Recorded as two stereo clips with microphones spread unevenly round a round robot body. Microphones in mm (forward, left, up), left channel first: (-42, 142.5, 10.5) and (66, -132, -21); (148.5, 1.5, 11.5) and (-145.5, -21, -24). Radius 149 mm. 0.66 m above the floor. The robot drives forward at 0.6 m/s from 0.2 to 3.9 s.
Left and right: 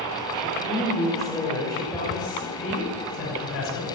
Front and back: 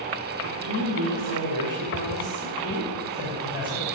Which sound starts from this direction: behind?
A woman speaking, at 0.4 s.